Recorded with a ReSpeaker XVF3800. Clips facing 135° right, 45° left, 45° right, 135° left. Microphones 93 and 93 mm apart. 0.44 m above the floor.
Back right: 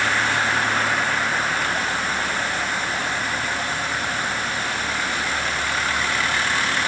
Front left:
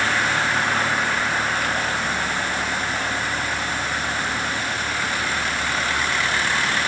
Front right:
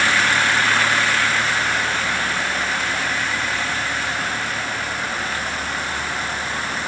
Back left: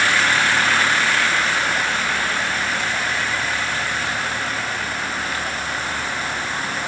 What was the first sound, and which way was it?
Only background noise.